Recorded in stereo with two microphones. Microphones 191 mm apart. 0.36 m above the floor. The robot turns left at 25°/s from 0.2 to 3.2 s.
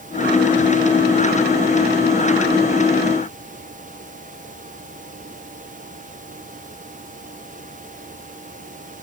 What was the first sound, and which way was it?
Only background noise.